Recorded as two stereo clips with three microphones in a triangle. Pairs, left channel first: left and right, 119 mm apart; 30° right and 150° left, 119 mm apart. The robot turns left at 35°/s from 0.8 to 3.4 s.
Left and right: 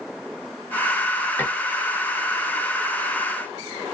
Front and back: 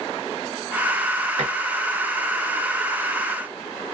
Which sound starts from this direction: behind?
Dishes clattering, at 1.4 s.